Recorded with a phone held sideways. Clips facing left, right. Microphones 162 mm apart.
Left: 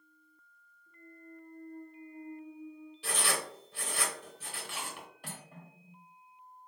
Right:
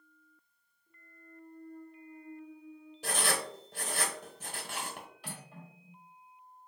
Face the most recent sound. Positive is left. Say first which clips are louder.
# right 1 dB
turn(degrees=50)  # may be behind; listen again after turning